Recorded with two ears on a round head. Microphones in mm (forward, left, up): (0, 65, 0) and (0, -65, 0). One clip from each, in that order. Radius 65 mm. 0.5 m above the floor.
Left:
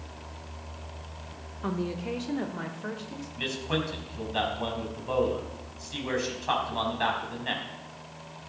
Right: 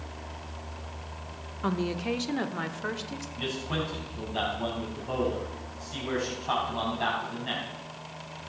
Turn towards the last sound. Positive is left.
turn(degrees=40)  # may be behind; listen again after turning